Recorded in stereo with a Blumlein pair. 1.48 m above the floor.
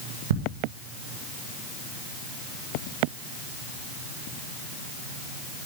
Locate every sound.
0.3 s ticking: 55° right, 2.0 m